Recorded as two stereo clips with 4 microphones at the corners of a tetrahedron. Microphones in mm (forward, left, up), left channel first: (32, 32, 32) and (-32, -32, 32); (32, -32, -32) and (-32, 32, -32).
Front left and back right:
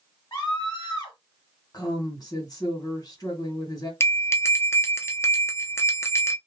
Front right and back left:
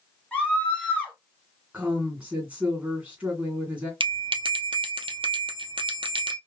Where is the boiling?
I don't hear boiling.